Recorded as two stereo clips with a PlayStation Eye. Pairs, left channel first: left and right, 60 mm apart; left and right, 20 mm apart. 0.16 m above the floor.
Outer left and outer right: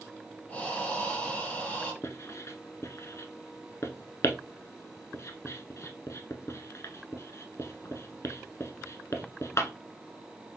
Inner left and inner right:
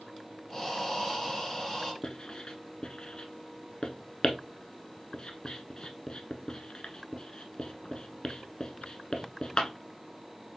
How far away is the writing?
About 0.8 m.